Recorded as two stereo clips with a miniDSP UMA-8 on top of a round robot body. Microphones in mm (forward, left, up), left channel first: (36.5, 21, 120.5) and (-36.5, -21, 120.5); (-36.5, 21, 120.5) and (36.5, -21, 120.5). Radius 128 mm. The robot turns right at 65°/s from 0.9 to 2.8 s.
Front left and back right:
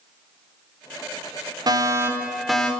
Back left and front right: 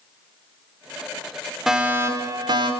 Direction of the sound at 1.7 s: 115° right.